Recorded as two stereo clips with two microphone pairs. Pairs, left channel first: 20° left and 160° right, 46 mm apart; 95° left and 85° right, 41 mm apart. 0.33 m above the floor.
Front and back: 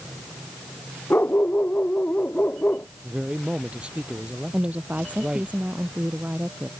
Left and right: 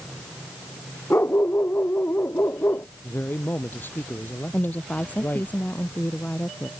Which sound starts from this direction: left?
A dog barking, at 1.1 s.